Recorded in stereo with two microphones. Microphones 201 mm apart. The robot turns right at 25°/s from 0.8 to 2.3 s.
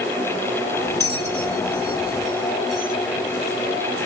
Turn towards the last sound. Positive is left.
turn(degrees=-40)  # may be behind; listen again after turning